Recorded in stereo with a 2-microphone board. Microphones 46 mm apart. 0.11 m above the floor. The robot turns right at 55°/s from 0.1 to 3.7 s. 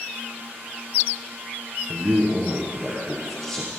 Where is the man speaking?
75° right, 2.5 m; by 3.7 s 25° left, 2.5 m.